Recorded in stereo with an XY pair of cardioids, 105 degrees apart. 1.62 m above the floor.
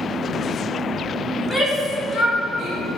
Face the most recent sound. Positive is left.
turn(degrees=40)